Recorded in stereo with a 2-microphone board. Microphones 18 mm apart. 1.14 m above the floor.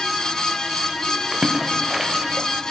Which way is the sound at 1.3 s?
40° right (ahead or behind).